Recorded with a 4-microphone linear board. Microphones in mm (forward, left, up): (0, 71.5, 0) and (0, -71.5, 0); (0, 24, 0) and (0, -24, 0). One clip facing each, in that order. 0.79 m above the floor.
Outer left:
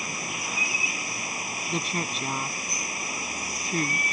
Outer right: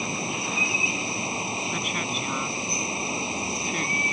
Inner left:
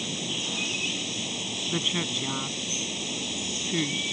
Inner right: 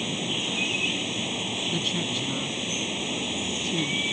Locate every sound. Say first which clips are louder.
0.0 s running water: outer right 5 dB, inner right 3 dB; 25° right (ahead or behind)
1.7 s a woman speaking: even, inner left 2 dB; 35° left (ahead or behind)